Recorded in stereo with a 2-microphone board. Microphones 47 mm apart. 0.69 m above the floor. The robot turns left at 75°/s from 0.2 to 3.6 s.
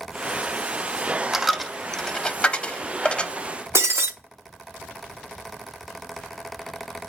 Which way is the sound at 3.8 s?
70° right (ahead or behind).